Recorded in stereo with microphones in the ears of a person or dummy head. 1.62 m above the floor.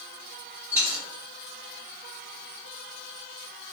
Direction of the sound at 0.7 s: 15° right (ahead or behind).